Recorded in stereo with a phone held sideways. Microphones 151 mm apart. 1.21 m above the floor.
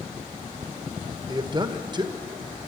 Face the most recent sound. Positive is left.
turn(degrees=-30)  # may be behind; listen again after turning